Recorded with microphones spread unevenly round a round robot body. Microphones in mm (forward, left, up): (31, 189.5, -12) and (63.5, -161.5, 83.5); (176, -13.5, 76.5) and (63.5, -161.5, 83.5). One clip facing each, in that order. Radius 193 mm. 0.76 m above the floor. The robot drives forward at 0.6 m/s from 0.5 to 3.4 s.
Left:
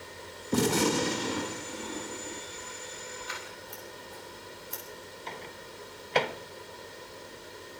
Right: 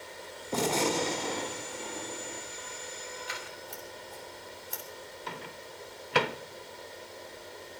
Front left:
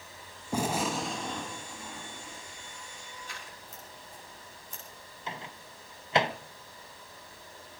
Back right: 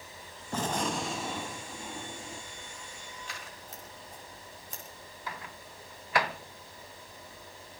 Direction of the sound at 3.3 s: 135° right.